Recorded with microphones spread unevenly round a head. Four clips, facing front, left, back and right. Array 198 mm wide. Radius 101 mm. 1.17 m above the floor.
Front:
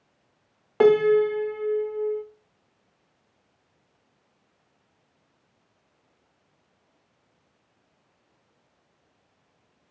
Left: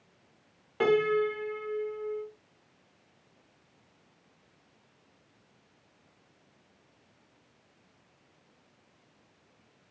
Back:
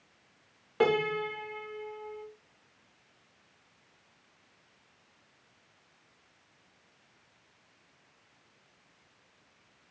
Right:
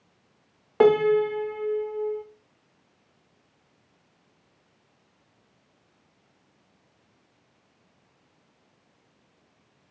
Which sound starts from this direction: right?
A piano, at 0.8 s.